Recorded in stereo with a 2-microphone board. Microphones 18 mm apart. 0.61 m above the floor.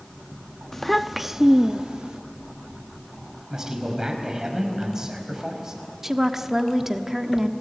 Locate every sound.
0.7 s a child speaking: 10° left (ahead or behind), 0.5 m; by 2.2 s 50° right (ahead or behind), 0.9 m
3.5 s a man speaking: 30° right (ahead or behind), 4.5 m
6.0 s a woman speaking: 20° right (ahead or behind), 1.3 m